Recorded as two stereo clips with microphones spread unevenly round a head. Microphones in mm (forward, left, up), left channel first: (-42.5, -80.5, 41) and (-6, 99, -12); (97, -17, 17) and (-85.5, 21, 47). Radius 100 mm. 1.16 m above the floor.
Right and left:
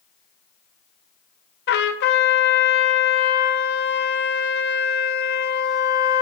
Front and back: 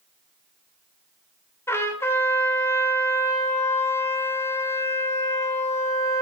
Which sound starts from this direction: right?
A trumpet, at 1.7 s.